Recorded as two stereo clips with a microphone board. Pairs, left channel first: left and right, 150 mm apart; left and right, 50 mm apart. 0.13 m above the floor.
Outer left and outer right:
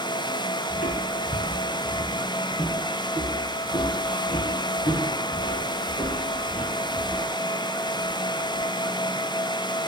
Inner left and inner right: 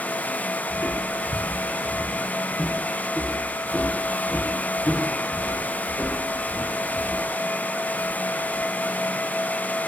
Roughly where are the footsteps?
Left.